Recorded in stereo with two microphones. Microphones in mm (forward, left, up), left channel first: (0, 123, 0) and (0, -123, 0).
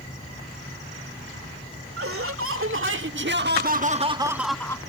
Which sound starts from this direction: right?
Laughter, at 2.0 s.